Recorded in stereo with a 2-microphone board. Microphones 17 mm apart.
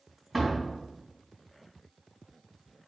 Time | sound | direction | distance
0.3 | a door slam | 5° right (ahead or behind) | 2.5 m